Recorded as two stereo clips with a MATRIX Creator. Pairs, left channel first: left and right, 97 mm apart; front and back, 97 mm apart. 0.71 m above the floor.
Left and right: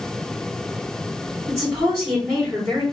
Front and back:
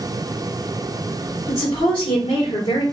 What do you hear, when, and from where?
1.5 s a woman speaking: 10° right, 1.8 m